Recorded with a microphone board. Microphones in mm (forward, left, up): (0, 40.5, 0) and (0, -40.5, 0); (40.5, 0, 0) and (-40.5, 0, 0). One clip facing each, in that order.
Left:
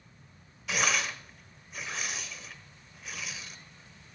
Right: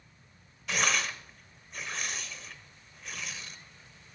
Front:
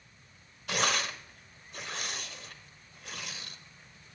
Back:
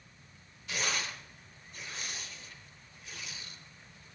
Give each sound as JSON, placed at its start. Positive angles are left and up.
{"t": 0.7, "sound": "tearing paper", "azimuth_deg": 0, "distance_m": 0.8}